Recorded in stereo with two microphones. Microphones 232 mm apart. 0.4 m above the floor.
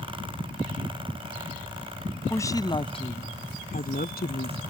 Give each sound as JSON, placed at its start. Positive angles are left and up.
{"t": 2.3, "sound": "a woman speaking", "side_deg": 10}